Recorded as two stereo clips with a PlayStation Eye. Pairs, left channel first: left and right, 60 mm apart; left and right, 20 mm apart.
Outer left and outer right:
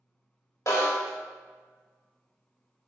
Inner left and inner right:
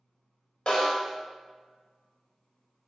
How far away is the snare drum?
About 0.9 m.